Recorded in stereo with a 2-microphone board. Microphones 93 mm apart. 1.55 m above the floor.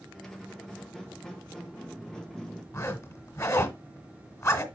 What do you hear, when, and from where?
0.1 s a squeak: 5° left (ahead or behind), 1.4 m
2.7 s a zipper: 30° left (ahead or behind), 1.7 m